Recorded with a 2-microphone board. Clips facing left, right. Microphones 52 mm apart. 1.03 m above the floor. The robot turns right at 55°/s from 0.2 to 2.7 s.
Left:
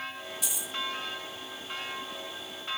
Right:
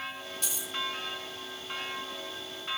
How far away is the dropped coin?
About 1.2 m.